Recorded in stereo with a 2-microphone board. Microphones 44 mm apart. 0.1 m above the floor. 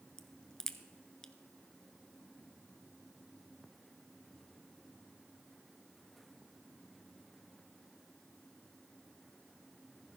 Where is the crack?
15° left (ahead or behind), 0.7 m.